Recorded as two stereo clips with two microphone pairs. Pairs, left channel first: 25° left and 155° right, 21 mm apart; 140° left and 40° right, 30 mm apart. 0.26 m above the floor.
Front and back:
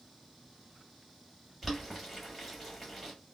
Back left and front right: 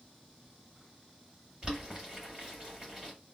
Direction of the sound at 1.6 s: 75° right.